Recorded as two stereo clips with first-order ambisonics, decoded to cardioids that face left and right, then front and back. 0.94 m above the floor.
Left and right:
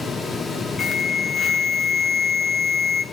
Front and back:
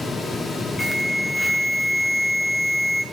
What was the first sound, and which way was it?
An alarm, 70° left.